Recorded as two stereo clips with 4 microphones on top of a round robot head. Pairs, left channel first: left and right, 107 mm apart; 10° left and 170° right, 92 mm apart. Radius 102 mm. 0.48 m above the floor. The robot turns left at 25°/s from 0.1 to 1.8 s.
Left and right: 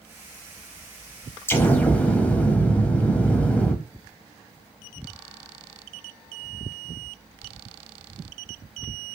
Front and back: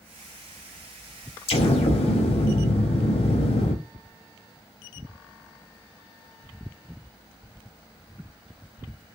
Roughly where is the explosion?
Ahead.